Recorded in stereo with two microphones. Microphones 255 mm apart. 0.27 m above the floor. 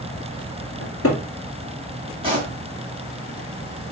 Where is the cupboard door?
60° left (ahead or behind), 2.5 m.